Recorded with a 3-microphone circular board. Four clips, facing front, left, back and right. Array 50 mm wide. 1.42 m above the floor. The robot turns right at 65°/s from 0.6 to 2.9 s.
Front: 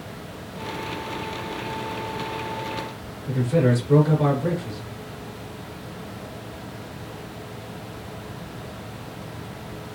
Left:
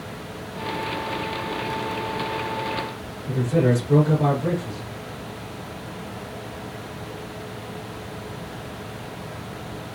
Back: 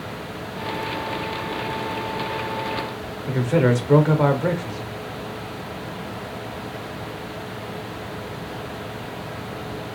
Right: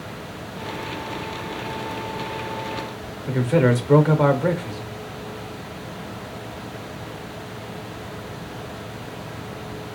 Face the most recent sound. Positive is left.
turn(degrees=-130)